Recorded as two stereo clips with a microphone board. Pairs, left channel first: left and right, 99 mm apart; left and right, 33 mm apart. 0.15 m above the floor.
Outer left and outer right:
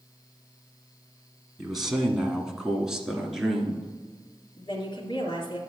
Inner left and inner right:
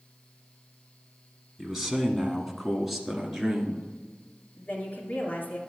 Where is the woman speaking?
55° left (ahead or behind), 2.5 m.